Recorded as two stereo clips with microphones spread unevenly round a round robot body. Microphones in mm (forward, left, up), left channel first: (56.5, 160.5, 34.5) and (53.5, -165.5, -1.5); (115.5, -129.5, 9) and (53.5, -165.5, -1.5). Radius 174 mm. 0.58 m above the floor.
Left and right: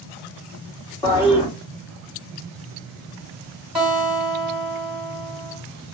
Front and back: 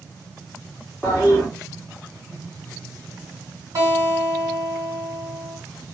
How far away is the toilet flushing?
About 1.0 m.